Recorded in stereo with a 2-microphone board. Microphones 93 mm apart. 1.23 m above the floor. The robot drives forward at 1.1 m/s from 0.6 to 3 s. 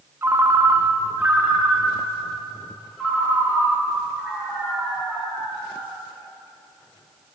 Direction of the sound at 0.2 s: 25° right (ahead or behind).